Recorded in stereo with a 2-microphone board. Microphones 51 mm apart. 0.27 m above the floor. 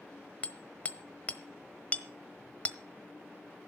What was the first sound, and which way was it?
Hammering, 30° left (ahead or behind).